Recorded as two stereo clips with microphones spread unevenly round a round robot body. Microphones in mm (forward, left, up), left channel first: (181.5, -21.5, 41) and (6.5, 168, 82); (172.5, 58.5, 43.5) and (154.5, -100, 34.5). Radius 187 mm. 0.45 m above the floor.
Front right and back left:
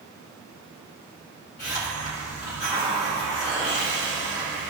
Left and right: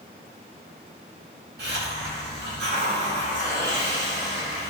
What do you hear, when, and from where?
1.6 s a hiss: 110° right, 3.5 m